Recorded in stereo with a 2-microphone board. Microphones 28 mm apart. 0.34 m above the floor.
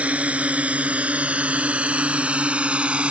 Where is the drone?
55° right (ahead or behind); by 3.1 s 45° right (ahead or behind).